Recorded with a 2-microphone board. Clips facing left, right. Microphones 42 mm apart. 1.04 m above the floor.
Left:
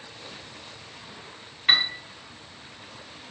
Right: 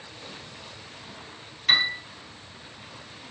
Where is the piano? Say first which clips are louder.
Even; 20° left (ahead or behind), 1.7 m.